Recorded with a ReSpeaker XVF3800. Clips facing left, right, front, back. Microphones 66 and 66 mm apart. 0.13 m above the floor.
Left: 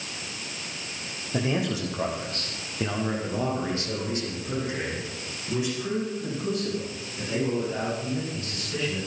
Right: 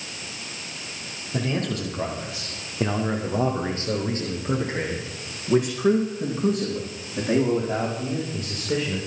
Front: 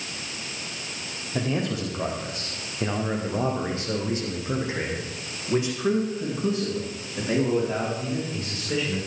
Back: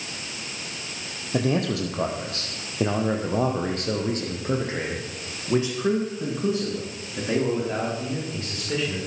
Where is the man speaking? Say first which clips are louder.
Even, back 3 dB; 165° left, 5 m; by 9.0 s 105° right, 10.5 m.